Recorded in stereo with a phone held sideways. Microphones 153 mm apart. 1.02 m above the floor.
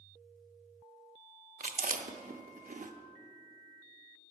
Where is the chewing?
60° right (ahead or behind), 0.6 m.